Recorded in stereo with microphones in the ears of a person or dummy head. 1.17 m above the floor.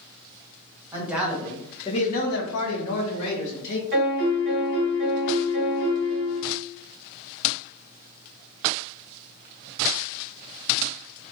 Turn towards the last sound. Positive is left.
turn(degrees=-50)  # may be behind; listen again after turning